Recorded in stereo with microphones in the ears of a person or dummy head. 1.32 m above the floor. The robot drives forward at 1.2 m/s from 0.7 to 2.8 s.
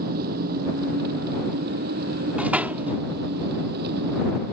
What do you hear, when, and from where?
0.0 s an engine running: 45° right (ahead or behind); by 4.5 s 50° right (ahead or behind)
2.4 s a door slam: centre (ahead or behind); by 3.0 s 5° right (ahead or behind)